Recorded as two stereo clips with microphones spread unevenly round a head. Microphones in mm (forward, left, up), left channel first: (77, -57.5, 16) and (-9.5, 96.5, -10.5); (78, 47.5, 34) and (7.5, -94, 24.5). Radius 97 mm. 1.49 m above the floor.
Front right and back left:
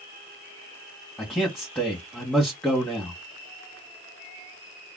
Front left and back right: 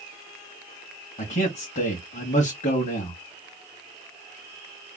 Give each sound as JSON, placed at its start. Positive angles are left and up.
{"t": 1.2, "sound": "a man speaking", "azimuth_deg": 25, "distance_m": 1.5}